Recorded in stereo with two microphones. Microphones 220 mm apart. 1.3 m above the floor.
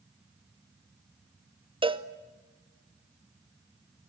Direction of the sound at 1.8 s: 25° right (ahead or behind).